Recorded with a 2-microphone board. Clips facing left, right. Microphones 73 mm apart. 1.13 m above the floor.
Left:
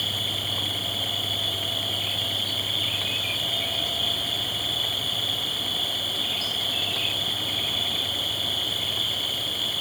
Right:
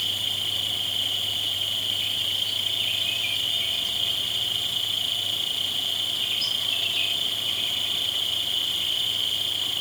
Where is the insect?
45° left (ahead or behind), 5 m.